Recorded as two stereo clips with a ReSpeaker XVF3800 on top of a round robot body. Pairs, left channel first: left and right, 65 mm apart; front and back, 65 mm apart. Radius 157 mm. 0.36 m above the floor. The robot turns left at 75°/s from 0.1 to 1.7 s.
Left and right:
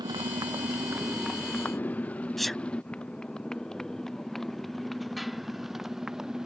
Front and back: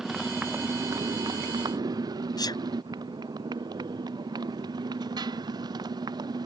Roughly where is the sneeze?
Ahead.